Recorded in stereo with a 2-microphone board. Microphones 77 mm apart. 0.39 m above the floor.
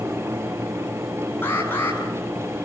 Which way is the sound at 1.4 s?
25° left (ahead or behind).